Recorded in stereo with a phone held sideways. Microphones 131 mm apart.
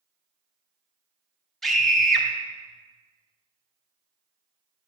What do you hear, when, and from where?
1.6 s a scream: centre (ahead or behind), 0.9 m